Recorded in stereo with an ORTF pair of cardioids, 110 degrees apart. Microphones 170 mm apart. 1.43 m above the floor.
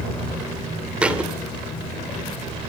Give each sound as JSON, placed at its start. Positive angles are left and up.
{"t": 1.0, "sound": "a thud", "azimuth_deg": -5, "distance_m": 2.5}